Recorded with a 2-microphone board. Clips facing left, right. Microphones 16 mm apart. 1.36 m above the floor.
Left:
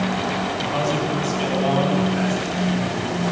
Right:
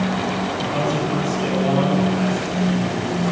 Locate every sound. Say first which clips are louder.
0.6 s a man speaking: right 1 dB; 45° left (ahead or behind), 9.5 m